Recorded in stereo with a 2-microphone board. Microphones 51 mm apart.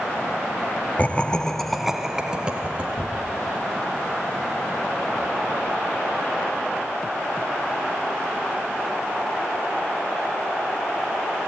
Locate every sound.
1.0 s laughter: 30° left (ahead or behind), 1.1 m; by 2.9 s 25° right (ahead or behind), 2 m
3.0 s tearing paper: 60° left (ahead or behind), 6.5 m